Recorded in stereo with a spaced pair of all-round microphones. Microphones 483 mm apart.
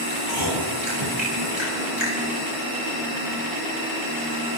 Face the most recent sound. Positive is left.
turn(degrees=-75)  # may be behind; listen again after turning